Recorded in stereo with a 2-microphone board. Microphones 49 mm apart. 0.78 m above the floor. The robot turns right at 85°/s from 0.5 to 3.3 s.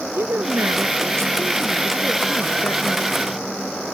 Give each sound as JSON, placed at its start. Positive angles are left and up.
{"t": 0.1, "sound": "a woman speaking", "azimuth_deg": -120}